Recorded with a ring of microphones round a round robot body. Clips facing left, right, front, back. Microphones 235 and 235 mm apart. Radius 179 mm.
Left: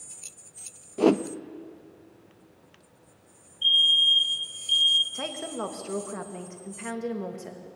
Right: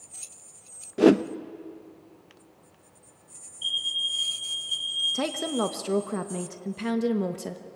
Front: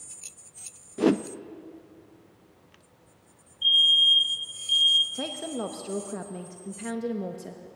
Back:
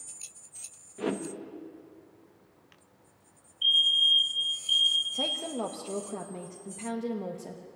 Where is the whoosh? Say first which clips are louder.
Right 3 dB, front 10 dB; 20° right, 0.8 m.